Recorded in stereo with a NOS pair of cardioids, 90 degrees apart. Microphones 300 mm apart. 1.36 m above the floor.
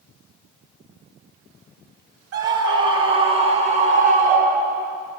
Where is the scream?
50° right, 4 m; by 4.9 s 40° right, 5.5 m.